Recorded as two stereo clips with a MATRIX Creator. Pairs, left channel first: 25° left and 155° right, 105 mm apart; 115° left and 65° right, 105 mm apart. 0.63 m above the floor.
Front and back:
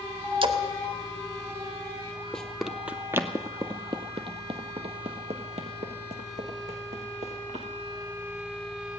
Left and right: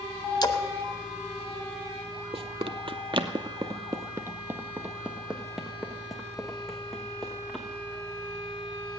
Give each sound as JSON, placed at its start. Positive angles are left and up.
{"t": 0.4, "sound": "a splash", "azimuth_deg": 165, "distance_m": 1.0}
{"t": 2.3, "sound": "running footsteps", "azimuth_deg": -60, "distance_m": 1.0}